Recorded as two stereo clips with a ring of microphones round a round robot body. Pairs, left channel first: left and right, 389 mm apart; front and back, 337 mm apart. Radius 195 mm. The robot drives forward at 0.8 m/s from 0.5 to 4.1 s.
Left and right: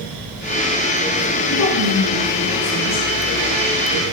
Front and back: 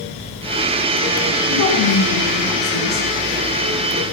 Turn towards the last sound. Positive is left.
turn(degrees=45)